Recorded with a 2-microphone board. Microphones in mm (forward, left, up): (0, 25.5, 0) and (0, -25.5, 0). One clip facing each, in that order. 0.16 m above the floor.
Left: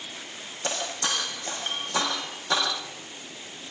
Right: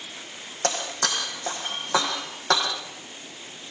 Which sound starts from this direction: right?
Breaking glass, at 0.6 s.